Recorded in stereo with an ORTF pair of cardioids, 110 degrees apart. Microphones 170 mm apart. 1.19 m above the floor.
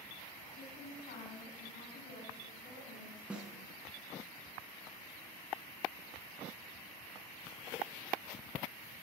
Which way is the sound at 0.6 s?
60° left.